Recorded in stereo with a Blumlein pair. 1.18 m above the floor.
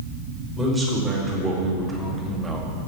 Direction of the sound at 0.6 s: 10° right.